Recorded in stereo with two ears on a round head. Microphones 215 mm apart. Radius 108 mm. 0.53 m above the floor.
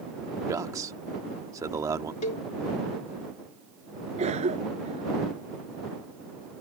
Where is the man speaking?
15° right (ahead or behind).